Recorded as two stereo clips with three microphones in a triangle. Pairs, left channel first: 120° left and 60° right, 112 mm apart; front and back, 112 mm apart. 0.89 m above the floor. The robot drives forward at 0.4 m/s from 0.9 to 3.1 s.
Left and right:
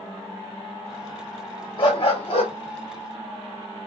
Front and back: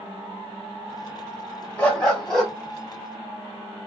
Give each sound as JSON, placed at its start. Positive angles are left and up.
{"t": 1.8, "sound": "a dog barking", "azimuth_deg": 80, "distance_m": 2.5}